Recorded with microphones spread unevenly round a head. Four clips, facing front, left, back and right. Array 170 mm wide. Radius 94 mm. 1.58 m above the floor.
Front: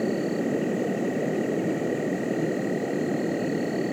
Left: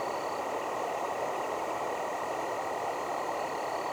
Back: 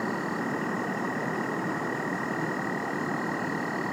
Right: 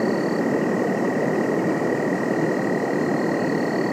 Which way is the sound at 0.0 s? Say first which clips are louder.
Right 12 dB, front 5 dB; 80° right.